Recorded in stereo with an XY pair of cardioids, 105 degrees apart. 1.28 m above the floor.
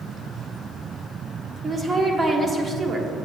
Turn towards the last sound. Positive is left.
turn(degrees=-25)